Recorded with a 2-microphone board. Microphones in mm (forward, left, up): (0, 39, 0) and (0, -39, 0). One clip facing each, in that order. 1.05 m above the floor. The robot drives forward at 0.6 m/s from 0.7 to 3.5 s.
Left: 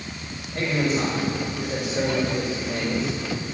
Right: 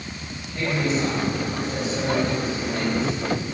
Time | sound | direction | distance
0.5 | a man speaking | 70° left (ahead or behind) | 4.5 m